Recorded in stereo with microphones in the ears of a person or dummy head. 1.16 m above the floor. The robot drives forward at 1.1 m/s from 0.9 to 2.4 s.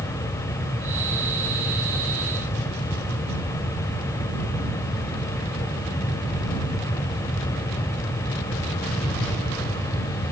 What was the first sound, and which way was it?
Only background noise.